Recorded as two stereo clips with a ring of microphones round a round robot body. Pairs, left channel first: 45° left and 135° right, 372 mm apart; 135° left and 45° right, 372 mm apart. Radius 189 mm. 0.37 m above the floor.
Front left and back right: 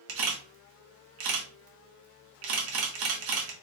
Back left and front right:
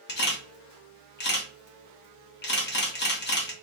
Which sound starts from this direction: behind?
A camera shutter, at 0.1 s.